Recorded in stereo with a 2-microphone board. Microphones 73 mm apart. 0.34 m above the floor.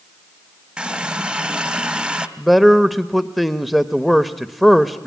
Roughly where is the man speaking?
Centre.